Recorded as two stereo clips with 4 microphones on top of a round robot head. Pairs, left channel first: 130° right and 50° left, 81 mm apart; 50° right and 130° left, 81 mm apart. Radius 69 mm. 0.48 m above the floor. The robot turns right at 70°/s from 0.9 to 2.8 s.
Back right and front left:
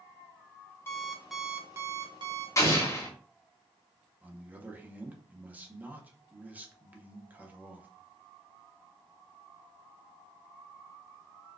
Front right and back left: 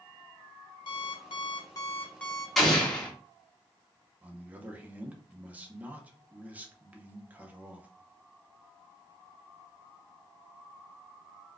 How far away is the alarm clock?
About 0.9 m.